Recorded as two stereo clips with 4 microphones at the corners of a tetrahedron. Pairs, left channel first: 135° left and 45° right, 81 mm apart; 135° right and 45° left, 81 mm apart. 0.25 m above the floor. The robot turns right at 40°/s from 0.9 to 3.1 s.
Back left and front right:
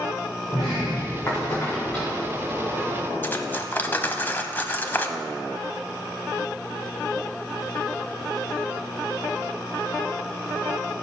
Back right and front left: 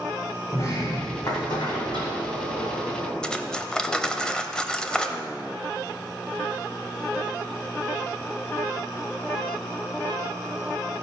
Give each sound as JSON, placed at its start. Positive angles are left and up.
{"t": 0.5, "sound": "a sliding door", "azimuth_deg": 170, "distance_m": 3.0}
{"t": 3.2, "sound": "cutlery clinking", "azimuth_deg": 155, "distance_m": 0.8}